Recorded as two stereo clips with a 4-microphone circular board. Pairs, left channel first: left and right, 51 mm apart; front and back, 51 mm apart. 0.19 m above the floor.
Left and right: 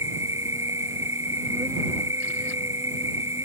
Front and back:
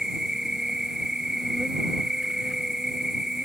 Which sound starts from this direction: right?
An insect, at 0.0 s.